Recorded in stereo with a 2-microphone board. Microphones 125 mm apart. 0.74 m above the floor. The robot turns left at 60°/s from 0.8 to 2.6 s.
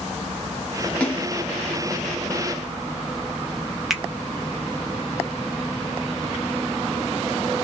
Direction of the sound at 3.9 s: 5° right (ahead or behind).